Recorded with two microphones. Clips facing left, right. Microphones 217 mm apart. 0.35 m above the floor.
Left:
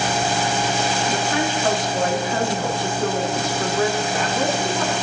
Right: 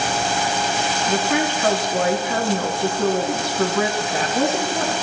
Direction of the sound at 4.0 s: 40° right (ahead or behind).